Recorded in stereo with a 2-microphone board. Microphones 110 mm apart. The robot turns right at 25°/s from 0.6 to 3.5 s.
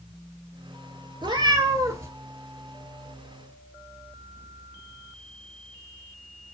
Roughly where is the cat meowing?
Right.